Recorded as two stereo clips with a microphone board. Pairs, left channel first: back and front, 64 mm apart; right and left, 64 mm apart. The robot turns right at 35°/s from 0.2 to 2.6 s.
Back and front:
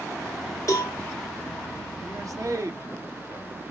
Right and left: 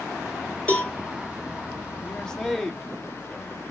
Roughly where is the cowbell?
Behind right.